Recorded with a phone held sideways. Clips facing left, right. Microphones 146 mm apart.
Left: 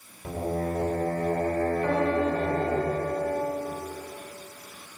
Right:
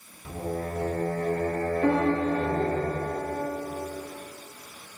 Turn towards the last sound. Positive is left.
turn(degrees=-75)  # may be behind; listen again after turning